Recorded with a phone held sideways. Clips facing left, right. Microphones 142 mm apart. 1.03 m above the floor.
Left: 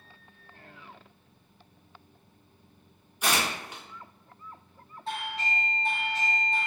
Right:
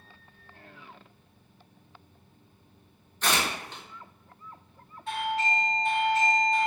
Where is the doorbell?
30° left (ahead or behind), 1.6 m.